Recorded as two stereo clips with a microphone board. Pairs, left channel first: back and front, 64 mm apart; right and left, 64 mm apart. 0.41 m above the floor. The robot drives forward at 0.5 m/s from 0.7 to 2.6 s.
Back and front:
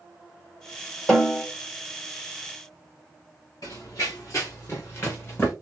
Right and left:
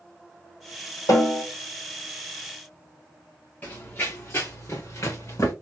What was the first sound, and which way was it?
A snare drum, 105° right.